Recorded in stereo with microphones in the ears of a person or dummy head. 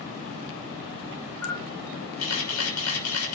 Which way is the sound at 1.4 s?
85° left.